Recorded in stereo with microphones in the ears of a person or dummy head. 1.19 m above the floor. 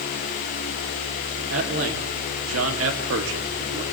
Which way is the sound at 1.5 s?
70° right (ahead or behind).